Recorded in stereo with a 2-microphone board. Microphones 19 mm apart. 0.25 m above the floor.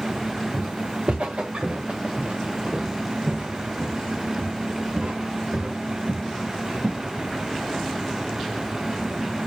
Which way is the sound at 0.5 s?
75° right (ahead or behind).